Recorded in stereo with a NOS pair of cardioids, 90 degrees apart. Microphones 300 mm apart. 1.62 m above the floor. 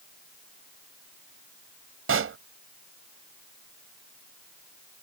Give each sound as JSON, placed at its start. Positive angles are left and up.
{"t": 2.1, "sound": "a pop", "azimuth_deg": -45}